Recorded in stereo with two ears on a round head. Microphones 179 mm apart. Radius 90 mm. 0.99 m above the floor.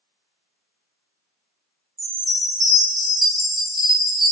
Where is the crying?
No crying in this recording.